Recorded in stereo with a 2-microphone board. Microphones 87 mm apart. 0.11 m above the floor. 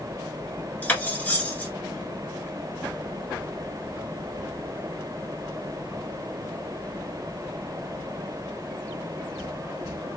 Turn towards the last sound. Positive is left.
turn(degrees=20)  # may be behind; listen again after turning